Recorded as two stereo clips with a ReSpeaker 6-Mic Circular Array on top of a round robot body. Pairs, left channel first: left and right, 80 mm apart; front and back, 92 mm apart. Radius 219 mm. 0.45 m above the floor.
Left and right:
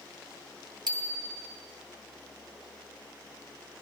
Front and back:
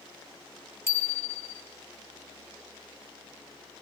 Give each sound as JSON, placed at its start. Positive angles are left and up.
{"t": 0.9, "sound": "a bicycle bell", "azimuth_deg": -60, "distance_m": 3.5}